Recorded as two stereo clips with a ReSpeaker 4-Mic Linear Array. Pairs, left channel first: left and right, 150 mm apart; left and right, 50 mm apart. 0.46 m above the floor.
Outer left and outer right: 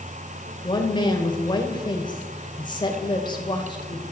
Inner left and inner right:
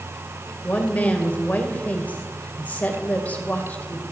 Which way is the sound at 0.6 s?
30° left (ahead or behind).